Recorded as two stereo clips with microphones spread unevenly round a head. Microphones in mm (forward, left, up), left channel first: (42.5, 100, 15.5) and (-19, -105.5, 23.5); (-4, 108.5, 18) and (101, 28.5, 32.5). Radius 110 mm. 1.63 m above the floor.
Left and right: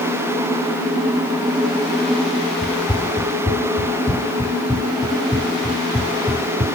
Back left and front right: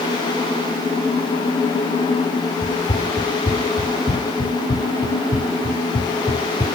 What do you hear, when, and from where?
2.6 s running footsteps: straight behind, 3 m; by 6.7 s 115° right, 1.7 m